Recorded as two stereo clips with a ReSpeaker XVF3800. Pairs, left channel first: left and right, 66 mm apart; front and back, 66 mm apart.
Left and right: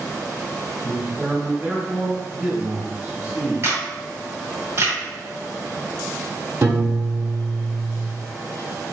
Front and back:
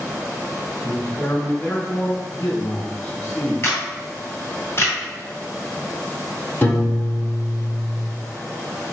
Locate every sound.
0.8 s a man speaking: 30° right, 1.6 m
3.6 s a camera shutter: 50° right, 1.9 m
6.6 s a piano: 55° right, 1.5 m